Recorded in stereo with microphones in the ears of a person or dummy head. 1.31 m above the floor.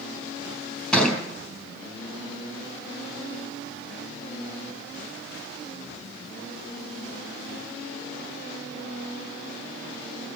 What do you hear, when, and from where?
0.9 s a thud: 10° left (ahead or behind), 5 m